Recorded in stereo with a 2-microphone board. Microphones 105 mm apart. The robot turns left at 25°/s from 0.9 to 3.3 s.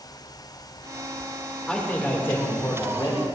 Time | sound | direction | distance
1.7 | a man speaking | 175° left | 2.5 m